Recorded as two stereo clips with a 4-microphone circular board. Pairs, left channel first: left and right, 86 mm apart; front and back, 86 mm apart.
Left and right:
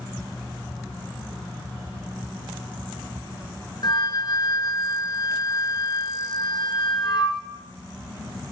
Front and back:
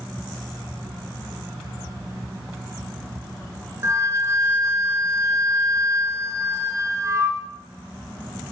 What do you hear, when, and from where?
3.8 s a flute: 125° left, 1.3 m